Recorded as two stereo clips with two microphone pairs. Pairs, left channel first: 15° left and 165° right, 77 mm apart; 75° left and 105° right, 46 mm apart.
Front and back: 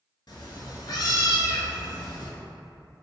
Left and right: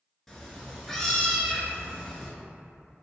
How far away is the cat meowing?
About 0.6 m.